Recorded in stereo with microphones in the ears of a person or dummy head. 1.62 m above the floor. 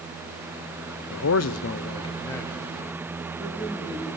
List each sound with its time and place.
1.1 s a man speaking: 70° left (ahead or behind), 0.8 m; by 4.1 s centre (ahead or behind), 4 m